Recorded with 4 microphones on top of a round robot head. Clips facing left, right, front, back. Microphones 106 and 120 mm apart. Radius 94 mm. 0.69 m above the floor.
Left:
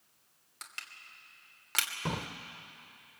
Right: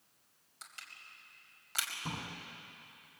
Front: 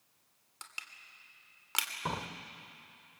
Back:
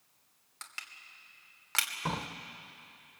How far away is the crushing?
About 2.5 m.